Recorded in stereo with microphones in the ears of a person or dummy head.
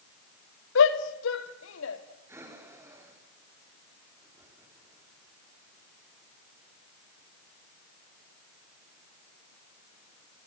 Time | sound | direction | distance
0.8 | a shout | 70° left (ahead or behind) | 2 m
2.3 | breathing | 15° right (ahead or behind) | 4.5 m